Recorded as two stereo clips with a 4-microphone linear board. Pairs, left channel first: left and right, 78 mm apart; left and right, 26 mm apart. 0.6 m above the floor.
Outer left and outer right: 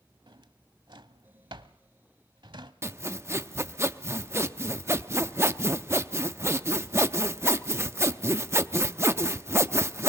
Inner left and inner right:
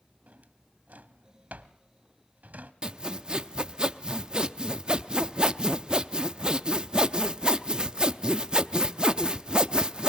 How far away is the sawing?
About 0.6 m.